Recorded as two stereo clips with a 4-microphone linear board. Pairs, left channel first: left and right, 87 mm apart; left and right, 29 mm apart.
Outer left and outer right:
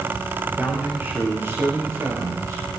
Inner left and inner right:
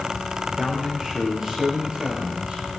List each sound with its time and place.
0.6 s a man speaking: 20° right (ahead or behind), 3.5 m; by 2.7 s 40° right (ahead or behind), 3 m